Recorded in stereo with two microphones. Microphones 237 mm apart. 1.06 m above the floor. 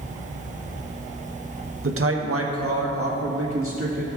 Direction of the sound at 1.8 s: 60° right (ahead or behind).